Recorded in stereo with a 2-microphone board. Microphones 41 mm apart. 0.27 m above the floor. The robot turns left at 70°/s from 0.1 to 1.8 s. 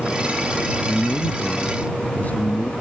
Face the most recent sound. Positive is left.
turn(degrees=135)